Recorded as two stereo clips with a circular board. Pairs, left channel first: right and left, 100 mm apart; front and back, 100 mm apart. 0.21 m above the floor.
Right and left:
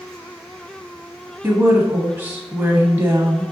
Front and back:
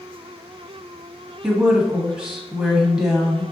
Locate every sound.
1.4 s a woman speaking: 105° left, 1.2 m